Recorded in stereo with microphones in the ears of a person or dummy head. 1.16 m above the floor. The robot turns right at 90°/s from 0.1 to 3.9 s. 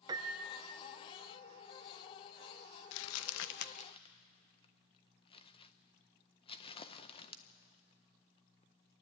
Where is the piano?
35° right, 0.7 m; by 0.8 s 30° left, 0.7 m.